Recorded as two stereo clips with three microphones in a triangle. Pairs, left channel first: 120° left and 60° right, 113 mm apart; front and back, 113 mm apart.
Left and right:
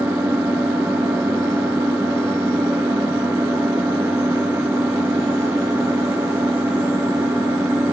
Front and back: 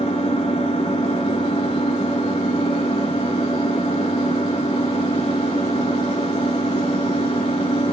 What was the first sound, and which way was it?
An engine running, 10° left.